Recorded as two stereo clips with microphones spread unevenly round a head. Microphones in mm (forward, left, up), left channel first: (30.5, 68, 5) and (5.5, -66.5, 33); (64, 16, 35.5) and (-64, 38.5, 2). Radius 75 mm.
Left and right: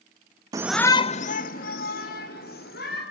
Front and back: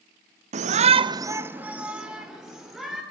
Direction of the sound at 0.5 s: 170° right.